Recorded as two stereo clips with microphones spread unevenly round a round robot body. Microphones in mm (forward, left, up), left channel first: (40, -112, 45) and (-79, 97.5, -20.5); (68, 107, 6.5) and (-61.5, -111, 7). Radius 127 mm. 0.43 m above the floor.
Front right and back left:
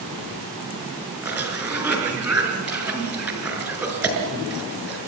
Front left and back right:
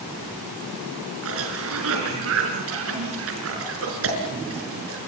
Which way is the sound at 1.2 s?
160° right.